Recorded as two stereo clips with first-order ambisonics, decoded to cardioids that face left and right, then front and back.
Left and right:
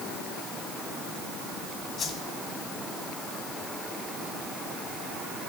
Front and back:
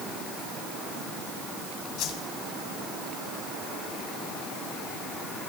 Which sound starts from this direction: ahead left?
A whoosh, at 2.0 s.